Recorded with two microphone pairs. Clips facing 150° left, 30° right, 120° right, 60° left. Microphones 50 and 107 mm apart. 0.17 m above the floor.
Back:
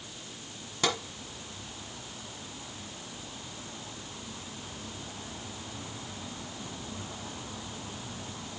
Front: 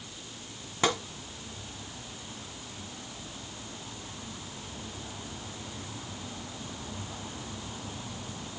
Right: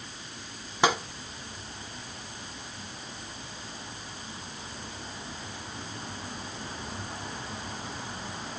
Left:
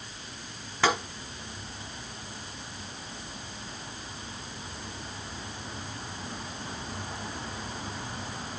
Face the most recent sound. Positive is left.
turn(degrees=-70)